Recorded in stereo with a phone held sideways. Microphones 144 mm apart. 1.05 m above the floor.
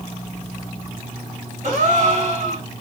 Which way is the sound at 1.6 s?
60° right (ahead or behind).